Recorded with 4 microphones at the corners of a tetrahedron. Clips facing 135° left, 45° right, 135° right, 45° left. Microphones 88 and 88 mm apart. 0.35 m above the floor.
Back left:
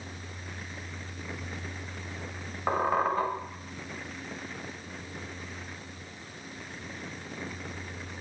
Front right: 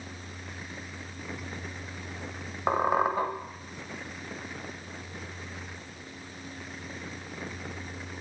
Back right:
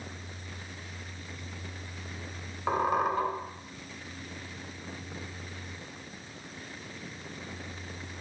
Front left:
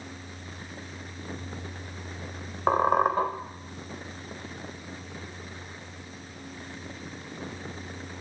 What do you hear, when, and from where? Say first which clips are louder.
2.7 s a squeak: front right 1 dB, front left 5 dB; 25° left, 0.7 m